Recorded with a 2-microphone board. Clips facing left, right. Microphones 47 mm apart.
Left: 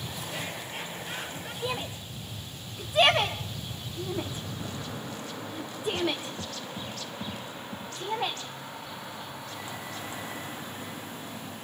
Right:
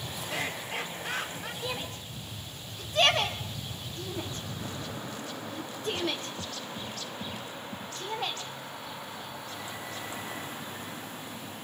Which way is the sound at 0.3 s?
80° right.